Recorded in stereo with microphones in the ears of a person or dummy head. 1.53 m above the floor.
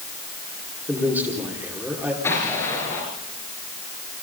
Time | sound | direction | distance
0.9 | a man speaking | 10° right (ahead or behind) | 5 m
2.2 | an explosion | 15° left (ahead or behind) | 6.5 m